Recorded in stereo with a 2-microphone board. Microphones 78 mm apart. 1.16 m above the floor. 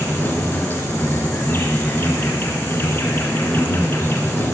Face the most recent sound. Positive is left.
turn(degrees=30)  # may be behind; listen again after turning